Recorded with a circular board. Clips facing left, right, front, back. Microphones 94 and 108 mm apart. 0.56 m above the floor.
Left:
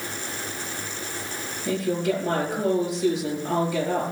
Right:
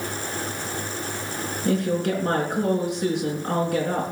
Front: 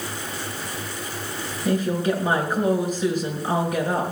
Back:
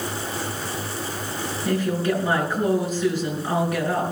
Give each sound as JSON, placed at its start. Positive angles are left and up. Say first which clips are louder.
{"t": 1.6, "sound": "a woman speaking", "louder": "right 1 dB, front 1 dB", "azimuth_deg": -70, "distance_m": 6.0}